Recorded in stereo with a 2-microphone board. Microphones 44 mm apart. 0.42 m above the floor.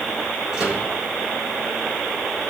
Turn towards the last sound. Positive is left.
turn(degrees=-15)  # may be behind; listen again after turning